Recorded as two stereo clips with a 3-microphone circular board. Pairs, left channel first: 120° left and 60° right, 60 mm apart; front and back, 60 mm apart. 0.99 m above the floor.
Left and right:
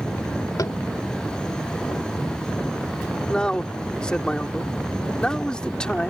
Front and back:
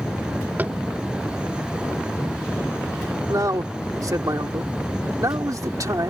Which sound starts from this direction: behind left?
Tapping, at 0.6 s.